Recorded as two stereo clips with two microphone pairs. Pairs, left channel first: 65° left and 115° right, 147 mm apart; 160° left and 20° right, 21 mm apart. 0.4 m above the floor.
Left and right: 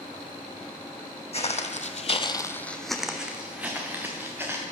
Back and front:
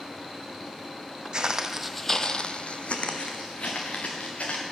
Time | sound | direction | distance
1.3 | footsteps | 25° left | 0.9 m